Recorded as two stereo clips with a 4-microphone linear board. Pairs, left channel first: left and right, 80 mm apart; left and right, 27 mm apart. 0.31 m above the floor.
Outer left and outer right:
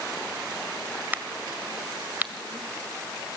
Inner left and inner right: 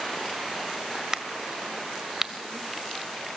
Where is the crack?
25° right (ahead or behind), 1.6 m.